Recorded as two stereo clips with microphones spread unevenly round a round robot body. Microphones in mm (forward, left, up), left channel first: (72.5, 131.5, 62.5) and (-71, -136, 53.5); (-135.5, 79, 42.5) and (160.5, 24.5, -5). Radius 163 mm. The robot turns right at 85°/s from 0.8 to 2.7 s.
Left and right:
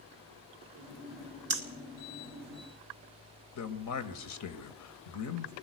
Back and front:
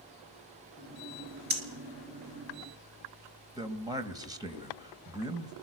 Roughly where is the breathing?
Right.